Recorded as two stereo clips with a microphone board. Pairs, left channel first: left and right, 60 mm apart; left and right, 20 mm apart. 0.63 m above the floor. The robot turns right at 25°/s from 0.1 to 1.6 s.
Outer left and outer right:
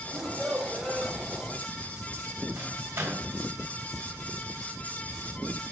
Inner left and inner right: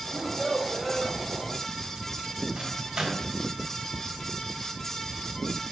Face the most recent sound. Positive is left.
turn(degrees=-40)  # may be behind; listen again after turning